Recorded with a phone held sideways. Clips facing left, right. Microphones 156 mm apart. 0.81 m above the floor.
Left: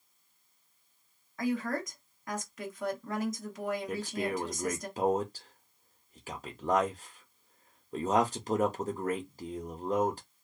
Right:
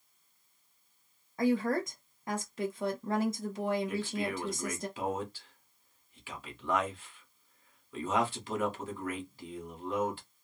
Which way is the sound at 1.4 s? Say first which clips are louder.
Right 4 dB; 30° right (ahead or behind).